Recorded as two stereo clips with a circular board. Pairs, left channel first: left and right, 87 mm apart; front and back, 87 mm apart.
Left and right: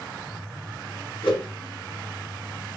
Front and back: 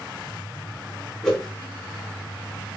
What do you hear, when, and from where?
1.2 s a whoosh: 85° left, 3 m